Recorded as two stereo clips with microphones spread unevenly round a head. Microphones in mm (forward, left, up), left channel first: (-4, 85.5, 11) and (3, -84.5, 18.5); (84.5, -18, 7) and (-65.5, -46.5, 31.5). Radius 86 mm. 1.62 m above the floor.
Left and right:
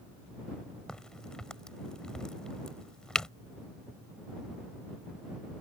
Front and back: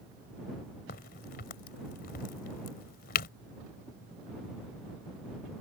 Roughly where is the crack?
Ahead.